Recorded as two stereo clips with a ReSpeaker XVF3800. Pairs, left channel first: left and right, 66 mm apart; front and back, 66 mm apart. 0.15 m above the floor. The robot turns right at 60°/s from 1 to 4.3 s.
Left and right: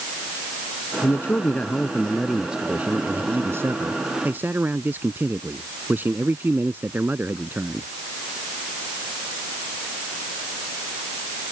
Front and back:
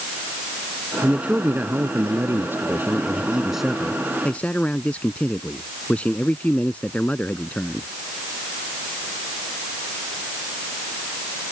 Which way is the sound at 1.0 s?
110° left.